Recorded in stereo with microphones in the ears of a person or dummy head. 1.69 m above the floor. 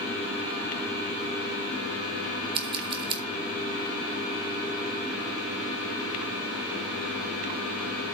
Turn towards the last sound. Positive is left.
turn(degrees=-30)  # may be behind; listen again after turning